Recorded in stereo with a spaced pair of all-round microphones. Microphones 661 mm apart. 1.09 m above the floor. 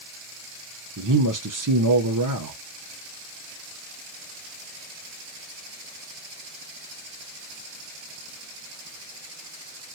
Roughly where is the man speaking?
Right.